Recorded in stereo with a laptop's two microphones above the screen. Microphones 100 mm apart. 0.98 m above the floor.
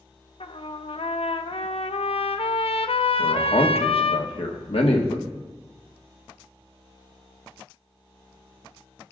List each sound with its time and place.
0.4 s a trumpet: 70° left (ahead or behind), 0.6 m
3.2 s a man speaking: 75° left (ahead or behind), 1.5 m